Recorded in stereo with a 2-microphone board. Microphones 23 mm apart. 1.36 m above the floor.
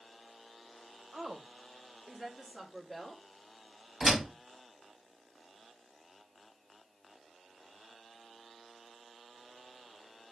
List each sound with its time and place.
1.1 s a woman speaking: 40° right (ahead or behind), 1.2 m; by 3.2 s 5° left (ahead or behind), 1.7 m
4.0 s a door slam: 20° right (ahead or behind), 2.0 m